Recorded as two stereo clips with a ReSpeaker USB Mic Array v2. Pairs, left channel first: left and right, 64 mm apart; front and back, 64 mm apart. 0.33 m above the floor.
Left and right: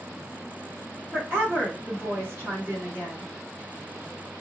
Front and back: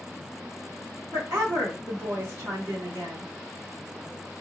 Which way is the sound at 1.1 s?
145° right.